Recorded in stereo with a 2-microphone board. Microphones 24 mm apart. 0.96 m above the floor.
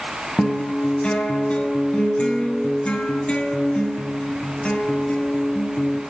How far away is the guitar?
About 7.5 m.